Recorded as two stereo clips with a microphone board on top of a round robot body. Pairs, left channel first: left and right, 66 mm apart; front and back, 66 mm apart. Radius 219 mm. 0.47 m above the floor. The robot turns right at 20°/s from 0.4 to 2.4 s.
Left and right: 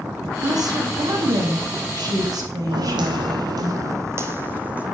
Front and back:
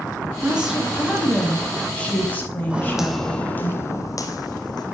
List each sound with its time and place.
0.4 s a woman speaking: 105° right, 5.5 m; by 3.7 s 65° right, 5.5 m
2.7 s footsteps: 105° right, 1.4 m; by 4.8 s 20° right, 1.8 m